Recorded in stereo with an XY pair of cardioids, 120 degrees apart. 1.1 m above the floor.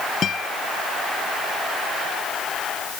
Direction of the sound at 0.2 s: 45° left.